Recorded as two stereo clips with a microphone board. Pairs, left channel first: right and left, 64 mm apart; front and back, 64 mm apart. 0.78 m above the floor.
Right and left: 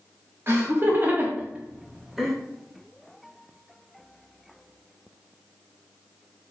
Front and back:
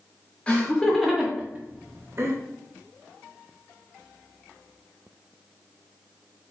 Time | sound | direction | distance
0.5 | laughter | 65° left | 0.8 m